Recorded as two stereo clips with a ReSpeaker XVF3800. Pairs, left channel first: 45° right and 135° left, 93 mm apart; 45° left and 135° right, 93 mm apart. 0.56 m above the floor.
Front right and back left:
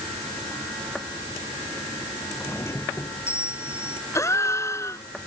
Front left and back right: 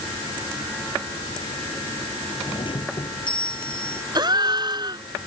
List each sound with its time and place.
2.4 s a doorbell: 15° left
4.2 s a gasp: 100° right